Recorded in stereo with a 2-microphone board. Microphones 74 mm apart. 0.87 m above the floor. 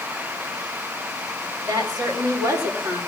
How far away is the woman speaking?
About 4 m.